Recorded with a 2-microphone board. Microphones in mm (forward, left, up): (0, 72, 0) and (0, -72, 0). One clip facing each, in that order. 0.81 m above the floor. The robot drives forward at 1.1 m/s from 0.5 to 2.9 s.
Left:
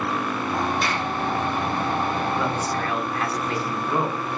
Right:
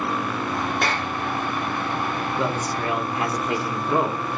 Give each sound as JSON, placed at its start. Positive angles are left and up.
{"t": 0.8, "sound": "a clap", "side_deg": -75, "distance_m": 2.5}
{"t": 2.4, "sound": "a man speaking", "side_deg": -25, "distance_m": 1.4}